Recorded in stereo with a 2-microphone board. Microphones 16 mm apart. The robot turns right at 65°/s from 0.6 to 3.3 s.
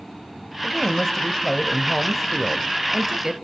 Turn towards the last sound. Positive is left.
turn(degrees=-25)  # may be behind; listen again after turning